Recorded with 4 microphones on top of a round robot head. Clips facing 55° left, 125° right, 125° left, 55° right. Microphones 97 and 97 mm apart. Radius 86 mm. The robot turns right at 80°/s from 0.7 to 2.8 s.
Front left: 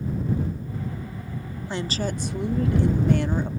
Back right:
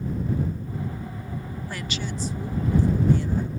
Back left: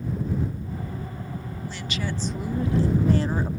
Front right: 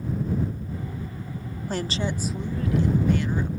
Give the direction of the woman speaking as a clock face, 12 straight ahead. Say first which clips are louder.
Front left 7 dB, front right 5 dB; 1 o'clock.